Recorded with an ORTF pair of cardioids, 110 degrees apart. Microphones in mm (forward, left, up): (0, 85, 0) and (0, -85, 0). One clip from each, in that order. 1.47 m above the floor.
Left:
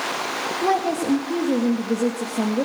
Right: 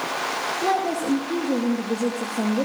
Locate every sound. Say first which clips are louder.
0.6 s a woman speaking: left 2 dB; 15° left, 1.9 m